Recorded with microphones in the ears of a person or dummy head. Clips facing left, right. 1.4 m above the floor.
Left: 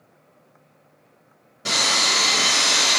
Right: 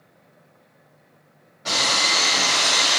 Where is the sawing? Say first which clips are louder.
Even; 55° left (ahead or behind), 1.9 m.